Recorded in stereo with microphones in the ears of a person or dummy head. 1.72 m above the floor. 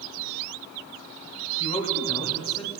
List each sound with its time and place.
1.6 s a man speaking: 30° left (ahead or behind), 3 m